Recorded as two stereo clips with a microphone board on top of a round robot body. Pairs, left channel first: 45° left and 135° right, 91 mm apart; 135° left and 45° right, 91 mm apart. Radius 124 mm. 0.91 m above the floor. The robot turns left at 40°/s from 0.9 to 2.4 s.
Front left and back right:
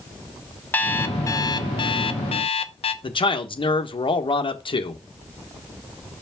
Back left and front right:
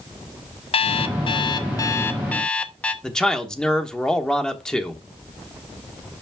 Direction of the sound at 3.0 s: 55° left.